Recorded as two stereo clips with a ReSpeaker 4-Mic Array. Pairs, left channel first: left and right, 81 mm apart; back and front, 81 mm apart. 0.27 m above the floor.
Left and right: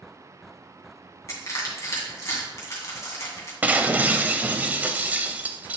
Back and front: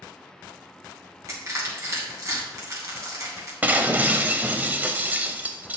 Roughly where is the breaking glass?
Ahead right.